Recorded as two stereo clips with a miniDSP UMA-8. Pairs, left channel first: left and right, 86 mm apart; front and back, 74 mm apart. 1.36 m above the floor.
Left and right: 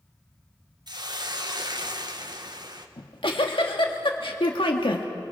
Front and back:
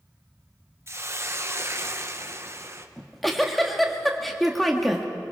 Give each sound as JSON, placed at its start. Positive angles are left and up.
{"t": 0.9, "sound": "a hiss", "azimuth_deg": -125, "distance_m": 1.1}
{"t": 3.0, "sound": "a giggle", "azimuth_deg": 90, "distance_m": 1.7}